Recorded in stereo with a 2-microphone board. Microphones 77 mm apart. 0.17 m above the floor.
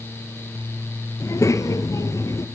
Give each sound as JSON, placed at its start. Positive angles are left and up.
{"t": 1.2, "sound": "a child speaking", "side_deg": 45, "distance_m": 2.5}